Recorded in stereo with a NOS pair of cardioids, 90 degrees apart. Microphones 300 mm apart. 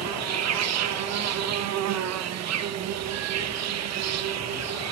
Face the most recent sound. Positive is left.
turn(degrees=-60)